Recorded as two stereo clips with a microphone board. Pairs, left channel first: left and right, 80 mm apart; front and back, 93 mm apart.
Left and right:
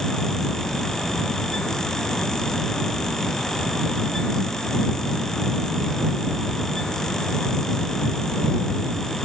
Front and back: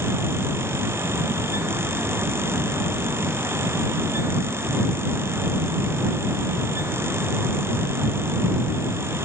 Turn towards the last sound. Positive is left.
No sound to turn to.